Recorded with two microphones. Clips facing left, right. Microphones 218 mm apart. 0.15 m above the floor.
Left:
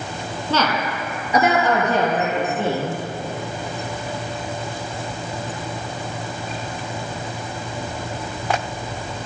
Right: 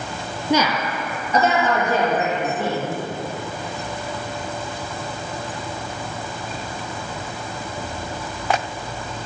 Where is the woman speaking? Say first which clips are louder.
Right 2 dB; 15° right (ahead or behind), 1.3 m; by 3.0 s 30° left (ahead or behind), 4 m.